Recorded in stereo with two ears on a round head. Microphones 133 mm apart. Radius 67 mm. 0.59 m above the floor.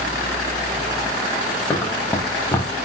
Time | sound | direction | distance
1.7 | running footsteps | 20° left (ahead or behind) | 3 m